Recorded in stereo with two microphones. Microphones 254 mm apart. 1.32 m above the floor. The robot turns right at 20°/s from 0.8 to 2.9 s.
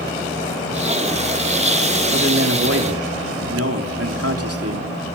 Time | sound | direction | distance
2.1 | a man speaking | 50° right (ahead or behind) | 3.5 m